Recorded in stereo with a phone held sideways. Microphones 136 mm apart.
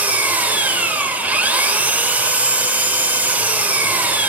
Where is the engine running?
10° right (ahead or behind), 0.8 m.